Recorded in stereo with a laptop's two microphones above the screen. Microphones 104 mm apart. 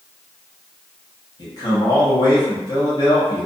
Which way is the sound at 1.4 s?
40° left (ahead or behind).